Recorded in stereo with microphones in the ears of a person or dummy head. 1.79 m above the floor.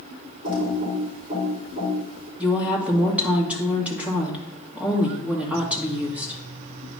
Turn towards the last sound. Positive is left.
turn(degrees=-5)  # may be behind; listen again after turning